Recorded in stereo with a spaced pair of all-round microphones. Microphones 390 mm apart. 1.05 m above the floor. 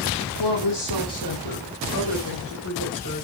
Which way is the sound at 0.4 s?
85° left.